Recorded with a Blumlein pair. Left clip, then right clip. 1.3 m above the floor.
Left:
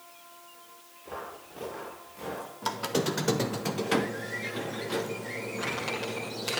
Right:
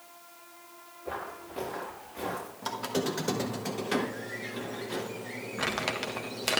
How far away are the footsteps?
About 5.5 m.